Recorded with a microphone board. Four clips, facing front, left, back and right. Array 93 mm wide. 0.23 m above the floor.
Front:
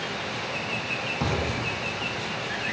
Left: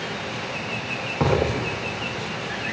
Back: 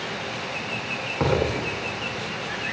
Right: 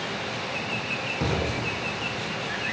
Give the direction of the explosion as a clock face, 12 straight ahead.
8 o'clock.